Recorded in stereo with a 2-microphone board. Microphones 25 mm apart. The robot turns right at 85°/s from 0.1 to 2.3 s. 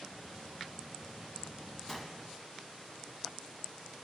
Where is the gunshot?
160° left, 1.8 m; by 2.3 s 170° right, 1.8 m.